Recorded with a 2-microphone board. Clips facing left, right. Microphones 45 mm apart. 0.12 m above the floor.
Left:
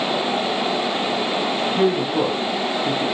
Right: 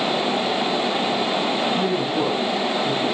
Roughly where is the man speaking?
Left.